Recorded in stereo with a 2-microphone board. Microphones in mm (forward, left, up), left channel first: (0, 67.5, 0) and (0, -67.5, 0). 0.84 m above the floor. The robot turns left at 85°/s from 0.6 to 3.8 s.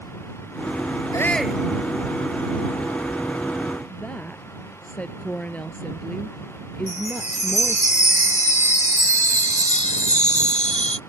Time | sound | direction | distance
1.1 | a shout | 25° left | ?
3.9 | a woman speaking | 10° left (ahead or behind) | ?
6.9 | a chime | 60° left (ahead or behind) | ?